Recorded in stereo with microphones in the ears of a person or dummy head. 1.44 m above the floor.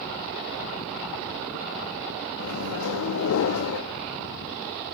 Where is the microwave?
70° left (ahead or behind), 1.6 m.